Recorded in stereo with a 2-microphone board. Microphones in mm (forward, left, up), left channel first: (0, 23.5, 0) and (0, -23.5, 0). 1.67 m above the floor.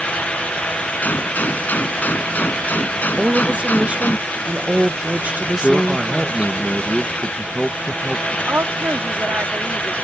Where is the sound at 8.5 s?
60° right (ahead or behind).